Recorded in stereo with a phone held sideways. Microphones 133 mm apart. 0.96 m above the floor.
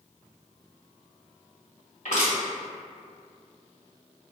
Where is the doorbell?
I don't hear a doorbell.